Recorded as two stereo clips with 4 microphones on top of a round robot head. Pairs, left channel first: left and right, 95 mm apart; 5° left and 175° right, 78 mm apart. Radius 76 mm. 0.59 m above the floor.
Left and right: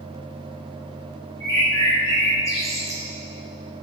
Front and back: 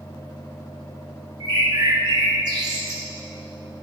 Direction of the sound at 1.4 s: 150° left.